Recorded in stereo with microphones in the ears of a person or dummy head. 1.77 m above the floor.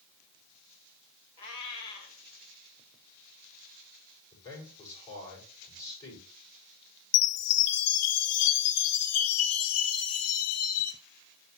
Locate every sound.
1.4 s a cat meowing: 25° left (ahead or behind), 1.6 m
4.3 s a man speaking: 20° left (ahead or behind), 6 m
7.1 s a chime: 85° left, 0.9 m